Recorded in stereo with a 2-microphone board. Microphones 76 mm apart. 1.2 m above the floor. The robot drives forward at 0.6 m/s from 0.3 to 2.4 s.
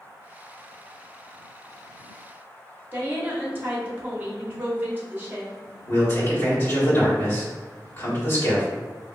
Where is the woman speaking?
25° right (ahead or behind), 0.9 m.